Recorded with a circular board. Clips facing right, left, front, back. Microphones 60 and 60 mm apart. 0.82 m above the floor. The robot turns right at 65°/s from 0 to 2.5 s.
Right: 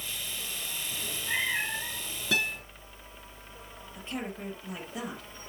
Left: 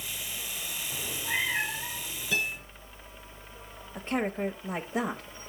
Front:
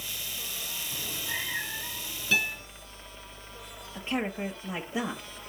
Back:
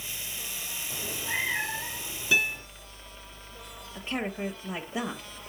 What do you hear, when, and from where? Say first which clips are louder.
0.9 s a cat meowing: left 1 dB, back 4 dB; 150° left, 1.8 m; by 2.6 s 105° right, 1.8 m
2.3 s a guitar: right 1 dB, back 2 dB; 105° right, 4 m; by 2.6 s 90° right, 4 m
4.0 s a woman speaking: left 7 dB, front 1 dB; 70° left, 1.1 m